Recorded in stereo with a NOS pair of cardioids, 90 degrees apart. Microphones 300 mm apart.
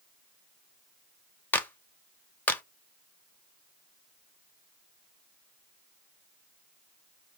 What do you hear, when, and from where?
1.5 s a clap: 5° left, 0.5 m